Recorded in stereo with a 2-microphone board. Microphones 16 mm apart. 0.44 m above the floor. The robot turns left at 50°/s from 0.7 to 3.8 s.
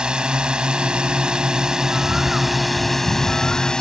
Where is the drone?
75° right; by 3.8 s 130° left.